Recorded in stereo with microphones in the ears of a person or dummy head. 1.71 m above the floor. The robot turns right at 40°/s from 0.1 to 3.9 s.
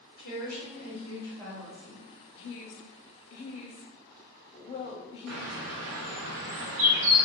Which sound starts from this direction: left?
A woman speaking, at 2.4 s.